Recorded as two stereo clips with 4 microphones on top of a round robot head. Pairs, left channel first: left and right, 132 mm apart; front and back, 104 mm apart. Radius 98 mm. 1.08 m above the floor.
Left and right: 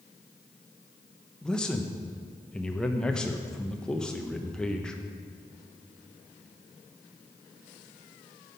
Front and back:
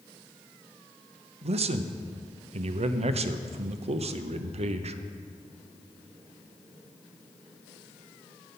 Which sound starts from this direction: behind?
A man speaking, at 1.4 s.